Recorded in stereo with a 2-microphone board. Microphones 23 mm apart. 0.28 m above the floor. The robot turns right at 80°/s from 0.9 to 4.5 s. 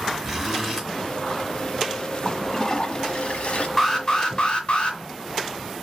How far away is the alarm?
About 1.6 m.